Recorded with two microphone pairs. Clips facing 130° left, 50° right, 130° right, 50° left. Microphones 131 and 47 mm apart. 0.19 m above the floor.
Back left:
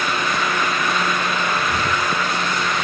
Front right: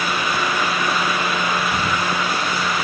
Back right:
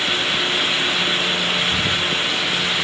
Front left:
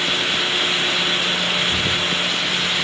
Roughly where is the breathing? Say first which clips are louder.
Even, even; behind left.